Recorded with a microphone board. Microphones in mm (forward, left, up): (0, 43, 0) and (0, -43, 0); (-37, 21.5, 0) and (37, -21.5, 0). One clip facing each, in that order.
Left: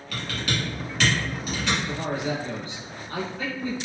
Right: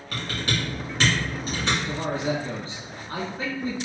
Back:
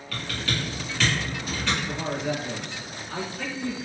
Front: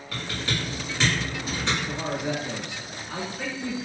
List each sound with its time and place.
0.1 s typing on a keyboard: 80° right, 1.7 m
1.9 s a man speaking: 95° right, 1.4 m